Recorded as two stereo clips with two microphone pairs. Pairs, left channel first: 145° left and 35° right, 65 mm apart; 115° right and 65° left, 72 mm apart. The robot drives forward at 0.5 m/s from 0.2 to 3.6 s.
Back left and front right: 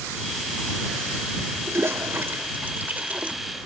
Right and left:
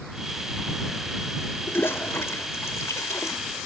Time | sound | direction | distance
1.7 | a toilet flushing | 65° right | ?